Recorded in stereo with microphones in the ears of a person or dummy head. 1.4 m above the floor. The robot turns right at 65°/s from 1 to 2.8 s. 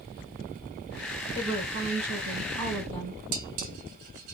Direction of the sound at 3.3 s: 45° right (ahead or behind).